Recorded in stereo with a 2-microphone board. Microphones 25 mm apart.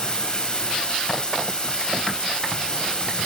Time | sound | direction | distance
0.0 | running water | 35° left (ahead or behind) | 2 m